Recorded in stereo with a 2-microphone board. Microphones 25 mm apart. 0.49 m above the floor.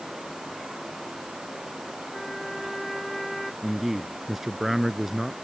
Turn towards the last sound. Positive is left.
turn(degrees=-10)  # may be behind; listen again after turning